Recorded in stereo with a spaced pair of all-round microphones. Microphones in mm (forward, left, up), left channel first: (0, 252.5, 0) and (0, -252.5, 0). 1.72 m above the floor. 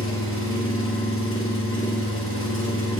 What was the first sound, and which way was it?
An engine running, 25° left (ahead or behind).